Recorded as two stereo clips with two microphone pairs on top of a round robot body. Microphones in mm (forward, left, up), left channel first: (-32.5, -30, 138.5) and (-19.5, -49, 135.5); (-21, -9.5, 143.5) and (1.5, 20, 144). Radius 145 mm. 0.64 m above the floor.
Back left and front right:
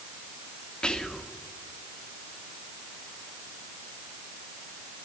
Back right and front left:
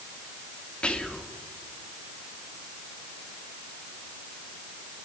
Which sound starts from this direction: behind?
Whispering, at 0.8 s.